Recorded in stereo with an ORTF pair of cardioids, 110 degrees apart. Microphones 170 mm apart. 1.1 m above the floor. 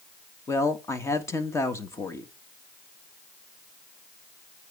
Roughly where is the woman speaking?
Ahead.